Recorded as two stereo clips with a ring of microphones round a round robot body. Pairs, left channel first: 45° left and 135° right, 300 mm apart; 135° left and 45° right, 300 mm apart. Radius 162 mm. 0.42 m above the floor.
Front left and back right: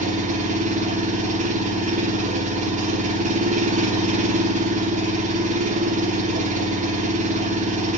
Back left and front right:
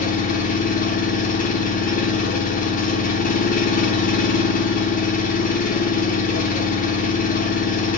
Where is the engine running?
Straight behind, 1.1 m.